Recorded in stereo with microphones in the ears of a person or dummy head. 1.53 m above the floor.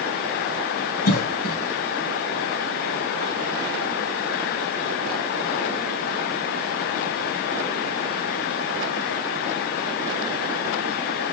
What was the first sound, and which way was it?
A cough, 50° left (ahead or behind).